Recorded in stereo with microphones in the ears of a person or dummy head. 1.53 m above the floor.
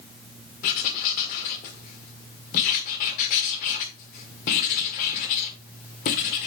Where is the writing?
50° left (ahead or behind), 1.8 m.